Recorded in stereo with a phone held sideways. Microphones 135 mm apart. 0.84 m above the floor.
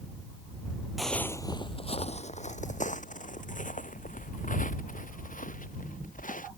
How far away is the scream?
No scream in this recording.